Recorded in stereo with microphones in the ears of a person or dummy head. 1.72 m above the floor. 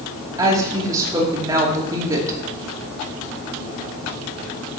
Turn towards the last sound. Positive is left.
turn(degrees=-20)  # may be behind; listen again after turning